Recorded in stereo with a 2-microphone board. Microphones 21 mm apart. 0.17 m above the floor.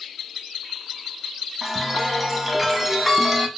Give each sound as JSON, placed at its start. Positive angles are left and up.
{"t": 1.6, "sound": "a chime", "side_deg": -5, "distance_m": 0.5}